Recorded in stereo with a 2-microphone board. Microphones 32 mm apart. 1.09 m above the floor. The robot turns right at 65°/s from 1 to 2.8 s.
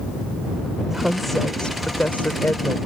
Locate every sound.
0.9 s a woman speaking: 15° right; by 2.8 s 100° left